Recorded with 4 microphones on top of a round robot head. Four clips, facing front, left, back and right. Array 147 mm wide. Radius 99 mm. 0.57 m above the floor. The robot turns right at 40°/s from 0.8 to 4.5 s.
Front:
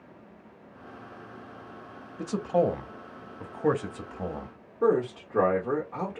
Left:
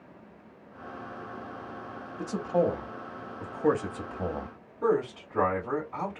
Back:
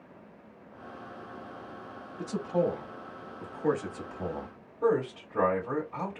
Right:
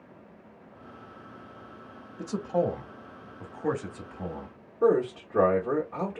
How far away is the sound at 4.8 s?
About 1.6 m.